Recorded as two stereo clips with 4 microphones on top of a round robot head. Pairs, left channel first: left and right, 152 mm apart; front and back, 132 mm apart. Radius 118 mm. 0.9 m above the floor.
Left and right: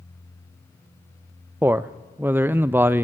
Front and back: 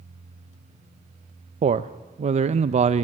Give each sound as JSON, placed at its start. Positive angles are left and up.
{"t": 1.6, "sound": "a man speaking", "azimuth_deg": -165, "distance_m": 0.5}